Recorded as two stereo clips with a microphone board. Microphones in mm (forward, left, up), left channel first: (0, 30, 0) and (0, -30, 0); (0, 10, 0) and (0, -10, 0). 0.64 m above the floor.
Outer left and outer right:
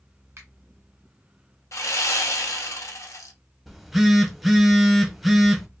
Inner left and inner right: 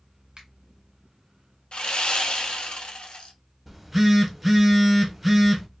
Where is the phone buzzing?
5° right (ahead or behind), 0.6 m.